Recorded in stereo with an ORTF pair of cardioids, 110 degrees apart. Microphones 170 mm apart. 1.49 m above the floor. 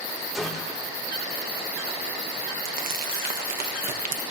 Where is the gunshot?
Straight ahead, 3 m.